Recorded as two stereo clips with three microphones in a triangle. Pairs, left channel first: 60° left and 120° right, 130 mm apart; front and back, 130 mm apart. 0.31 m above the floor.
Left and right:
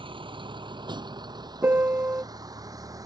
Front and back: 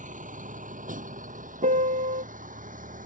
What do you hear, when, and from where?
0.0 s a vehicle: 170° right; by 3.1 s 175° left
1.6 s a piano: 165° left